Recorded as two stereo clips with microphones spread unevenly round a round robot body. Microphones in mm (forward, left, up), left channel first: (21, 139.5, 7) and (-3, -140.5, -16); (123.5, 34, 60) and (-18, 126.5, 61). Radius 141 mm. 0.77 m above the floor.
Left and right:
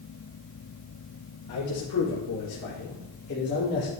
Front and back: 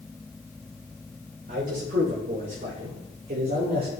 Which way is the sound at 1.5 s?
115° left.